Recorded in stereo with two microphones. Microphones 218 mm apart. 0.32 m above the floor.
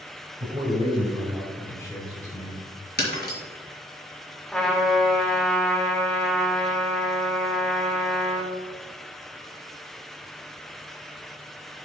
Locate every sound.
0.4 s a man speaking: 40° right (ahead or behind), 2.5 m; by 2.6 s 45° left (ahead or behind), 2 m
3.0 s breaking glass: 50° left (ahead or behind), 2 m
4.5 s a trumpet: 5° left (ahead or behind), 2.0 m